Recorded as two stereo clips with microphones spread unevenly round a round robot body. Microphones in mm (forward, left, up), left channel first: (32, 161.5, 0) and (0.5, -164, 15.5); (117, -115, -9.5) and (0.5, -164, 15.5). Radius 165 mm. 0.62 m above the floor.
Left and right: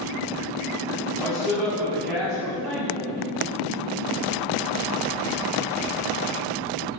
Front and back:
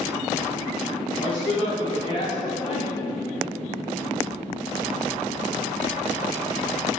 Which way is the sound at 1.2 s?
5° right.